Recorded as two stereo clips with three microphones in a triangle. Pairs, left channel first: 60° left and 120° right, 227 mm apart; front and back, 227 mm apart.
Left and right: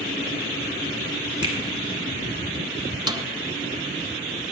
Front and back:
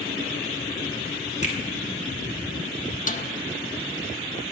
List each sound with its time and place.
1.4 s a finger snap: 50° right, 1.9 m
3.1 s a snare drum: 45° right, 0.6 m